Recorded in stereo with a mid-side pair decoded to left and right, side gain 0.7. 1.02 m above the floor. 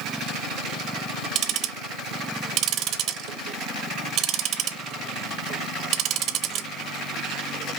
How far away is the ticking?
About 0.8 m.